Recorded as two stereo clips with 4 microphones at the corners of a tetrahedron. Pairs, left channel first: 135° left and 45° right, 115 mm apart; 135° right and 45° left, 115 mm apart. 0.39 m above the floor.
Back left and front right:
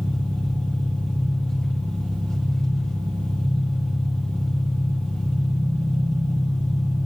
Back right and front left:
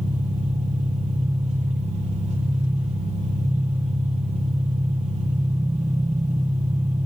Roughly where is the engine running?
Ahead left.